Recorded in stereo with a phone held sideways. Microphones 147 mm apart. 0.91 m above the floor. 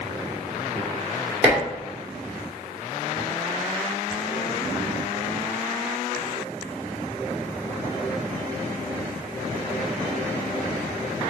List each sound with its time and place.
1.4 s dishes clattering: 10° right (ahead or behind), 1.7 m